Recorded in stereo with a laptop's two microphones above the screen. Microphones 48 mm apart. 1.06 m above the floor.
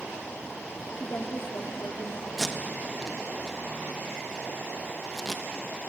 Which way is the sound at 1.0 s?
50° left (ahead or behind).